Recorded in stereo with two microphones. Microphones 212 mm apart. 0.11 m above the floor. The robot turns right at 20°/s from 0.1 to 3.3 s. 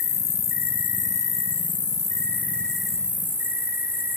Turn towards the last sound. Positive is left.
turn(degrees=-170)